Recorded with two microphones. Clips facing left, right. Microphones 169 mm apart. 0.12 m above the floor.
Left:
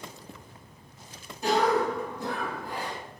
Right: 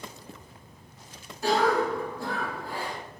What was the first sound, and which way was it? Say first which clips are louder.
A cough: even; 20° left (ahead or behind).